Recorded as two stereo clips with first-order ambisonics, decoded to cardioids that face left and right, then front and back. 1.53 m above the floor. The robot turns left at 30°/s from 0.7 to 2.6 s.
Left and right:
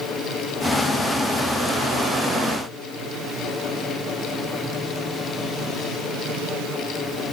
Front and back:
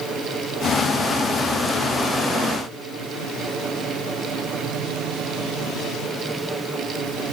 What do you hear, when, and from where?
Only background noise.